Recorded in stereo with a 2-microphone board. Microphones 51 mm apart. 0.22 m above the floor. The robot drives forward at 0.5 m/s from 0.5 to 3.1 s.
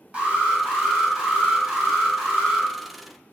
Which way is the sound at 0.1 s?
20° right (ahead or behind).